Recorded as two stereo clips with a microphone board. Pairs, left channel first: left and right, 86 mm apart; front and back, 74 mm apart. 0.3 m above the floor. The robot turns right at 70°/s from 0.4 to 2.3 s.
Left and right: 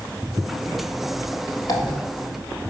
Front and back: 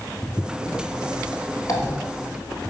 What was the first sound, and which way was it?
A dropped coin, 45° left.